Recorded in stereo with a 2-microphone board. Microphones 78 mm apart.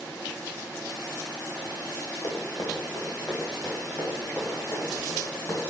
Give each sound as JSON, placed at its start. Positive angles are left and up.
{"t": 2.2, "sound": "running footsteps", "side_deg": 45, "distance_m": 3.0}